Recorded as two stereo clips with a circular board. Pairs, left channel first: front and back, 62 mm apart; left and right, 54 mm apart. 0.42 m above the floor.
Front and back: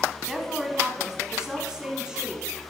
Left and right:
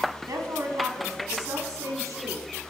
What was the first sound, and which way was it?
A woman speaking, 100° right.